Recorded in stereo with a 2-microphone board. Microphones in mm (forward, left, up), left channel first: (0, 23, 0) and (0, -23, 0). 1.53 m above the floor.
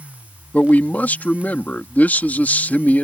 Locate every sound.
0.5 s a man speaking: 40° left (ahead or behind)